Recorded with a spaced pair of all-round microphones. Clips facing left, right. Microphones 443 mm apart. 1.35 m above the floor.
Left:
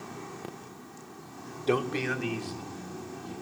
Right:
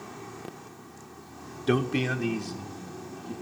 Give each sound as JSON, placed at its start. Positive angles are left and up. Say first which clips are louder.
{"t": 1.7, "sound": "a man speaking", "louder": "right 2 dB", "side_deg": -30, "distance_m": 0.6}